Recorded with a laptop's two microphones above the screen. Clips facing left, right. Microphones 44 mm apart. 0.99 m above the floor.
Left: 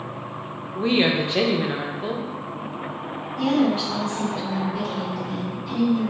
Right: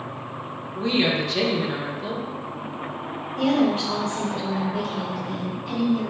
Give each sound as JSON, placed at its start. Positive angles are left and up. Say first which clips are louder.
{"t": 0.8, "sound": "a woman speaking", "louder": "left 2 dB", "side_deg": 25, "distance_m": 0.5}
{"t": 3.4, "sound": "a woman speaking", "louder": "even", "side_deg": -45, "distance_m": 1.0}